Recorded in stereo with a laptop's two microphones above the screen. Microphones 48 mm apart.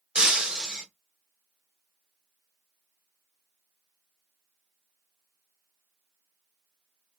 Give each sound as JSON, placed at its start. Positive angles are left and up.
{"t": 0.1, "sound": "breaking glass", "side_deg": -15, "distance_m": 1.9}